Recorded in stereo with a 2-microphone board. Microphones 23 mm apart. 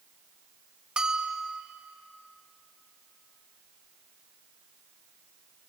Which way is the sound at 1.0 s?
40° right (ahead or behind).